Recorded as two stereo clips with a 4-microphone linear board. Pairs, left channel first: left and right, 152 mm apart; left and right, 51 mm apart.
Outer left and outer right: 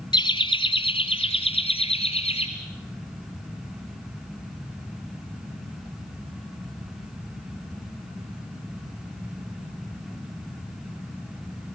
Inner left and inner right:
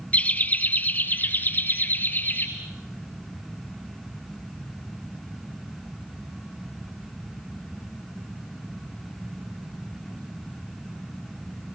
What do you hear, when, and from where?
0.1 s laughter: 30° left (ahead or behind), 1.6 m; by 2.5 s 40° left (ahead or behind), 4 m